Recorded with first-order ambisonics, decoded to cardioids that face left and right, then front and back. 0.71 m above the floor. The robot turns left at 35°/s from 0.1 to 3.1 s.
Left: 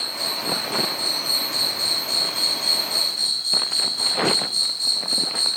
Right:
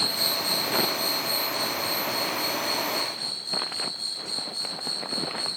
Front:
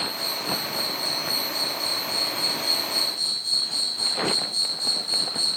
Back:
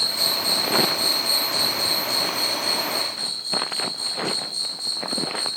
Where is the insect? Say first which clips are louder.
Even, back 6 dB; 160° right, 1.3 m; by 5.6 s 95° left, 1.3 m.